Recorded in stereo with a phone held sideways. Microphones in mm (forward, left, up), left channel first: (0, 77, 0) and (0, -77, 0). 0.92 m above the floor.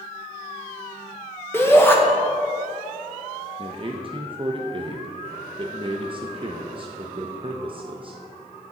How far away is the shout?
About 0.9 m.